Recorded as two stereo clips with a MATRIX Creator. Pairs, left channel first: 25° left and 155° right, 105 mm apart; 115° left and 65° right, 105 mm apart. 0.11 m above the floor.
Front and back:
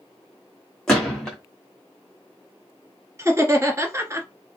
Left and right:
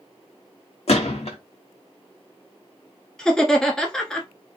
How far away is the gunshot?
About 1.3 m.